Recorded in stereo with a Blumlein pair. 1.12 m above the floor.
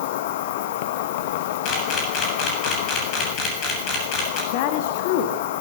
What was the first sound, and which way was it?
An insect, 50° left.